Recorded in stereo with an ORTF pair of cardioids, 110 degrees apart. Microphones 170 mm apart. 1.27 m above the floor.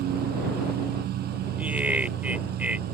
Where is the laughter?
10° right.